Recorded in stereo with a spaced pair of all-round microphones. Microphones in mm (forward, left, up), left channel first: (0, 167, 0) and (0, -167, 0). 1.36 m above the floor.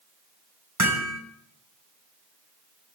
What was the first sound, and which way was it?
Hammering, 55° right (ahead or behind).